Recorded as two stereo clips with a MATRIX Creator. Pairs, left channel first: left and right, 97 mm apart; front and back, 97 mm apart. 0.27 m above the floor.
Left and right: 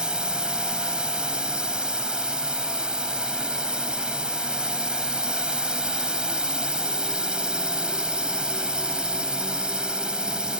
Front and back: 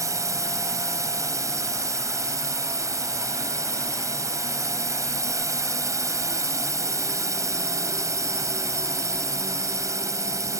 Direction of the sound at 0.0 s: 165° right.